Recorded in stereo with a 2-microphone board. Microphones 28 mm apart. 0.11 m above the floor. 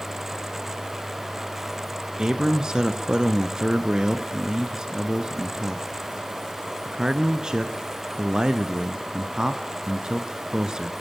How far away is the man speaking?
About 1.1 m.